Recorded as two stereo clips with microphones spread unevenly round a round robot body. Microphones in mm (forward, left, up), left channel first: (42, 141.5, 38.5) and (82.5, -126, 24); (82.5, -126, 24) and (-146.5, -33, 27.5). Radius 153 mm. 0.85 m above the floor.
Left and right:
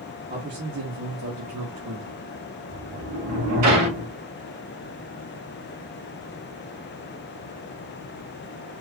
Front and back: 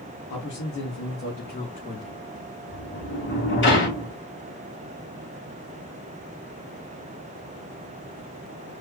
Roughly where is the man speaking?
Ahead right.